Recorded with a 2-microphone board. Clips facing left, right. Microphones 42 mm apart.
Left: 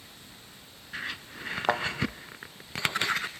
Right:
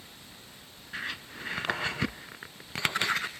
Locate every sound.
1.7 s a thud: 85° left, 0.7 m